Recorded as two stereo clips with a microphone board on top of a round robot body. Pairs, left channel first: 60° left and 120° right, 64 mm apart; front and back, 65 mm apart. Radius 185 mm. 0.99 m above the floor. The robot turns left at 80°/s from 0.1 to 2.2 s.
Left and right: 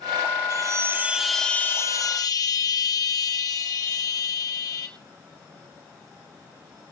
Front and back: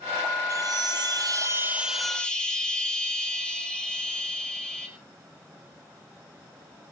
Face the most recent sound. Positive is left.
turn(degrees=75)